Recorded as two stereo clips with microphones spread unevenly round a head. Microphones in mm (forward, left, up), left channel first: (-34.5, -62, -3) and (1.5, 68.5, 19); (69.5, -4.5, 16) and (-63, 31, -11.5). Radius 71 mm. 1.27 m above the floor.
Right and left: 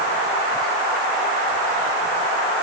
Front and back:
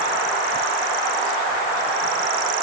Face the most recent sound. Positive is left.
No sound to turn to.